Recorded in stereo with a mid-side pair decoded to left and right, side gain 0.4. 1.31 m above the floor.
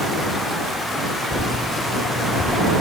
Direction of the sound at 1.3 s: 40° left.